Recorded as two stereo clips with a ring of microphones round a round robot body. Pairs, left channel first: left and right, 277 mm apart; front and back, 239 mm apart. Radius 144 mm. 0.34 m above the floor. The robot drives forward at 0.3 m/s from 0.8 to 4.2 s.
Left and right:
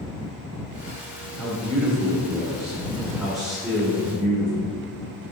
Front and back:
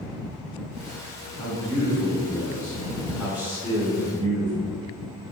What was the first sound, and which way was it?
A man speaking, straight ahead.